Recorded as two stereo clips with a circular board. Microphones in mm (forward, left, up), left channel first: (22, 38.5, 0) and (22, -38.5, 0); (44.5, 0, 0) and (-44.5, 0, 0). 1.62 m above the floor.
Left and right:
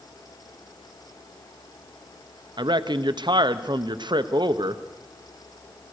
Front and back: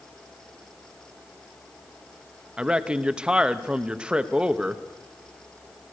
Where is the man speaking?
100° right, 0.8 m.